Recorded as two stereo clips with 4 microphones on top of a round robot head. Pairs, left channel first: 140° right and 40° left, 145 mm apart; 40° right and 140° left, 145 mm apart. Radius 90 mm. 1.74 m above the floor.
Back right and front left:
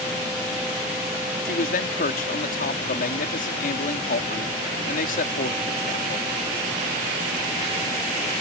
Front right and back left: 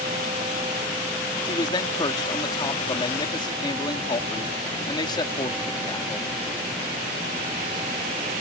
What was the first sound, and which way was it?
A man speaking, 105° right.